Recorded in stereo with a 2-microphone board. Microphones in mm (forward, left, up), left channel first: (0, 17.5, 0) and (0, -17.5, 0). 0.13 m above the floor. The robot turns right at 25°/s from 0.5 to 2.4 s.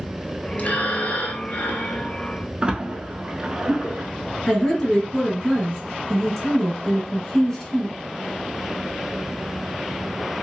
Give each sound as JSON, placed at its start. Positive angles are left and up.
{"t": 0.6, "sound": "breathing", "azimuth_deg": 55, "distance_m": 0.7}
{"t": 2.6, "sound": "a splash", "side_deg": -25, "distance_m": 0.6}
{"t": 4.5, "sound": "a woman speaking", "side_deg": 10, "distance_m": 1.3}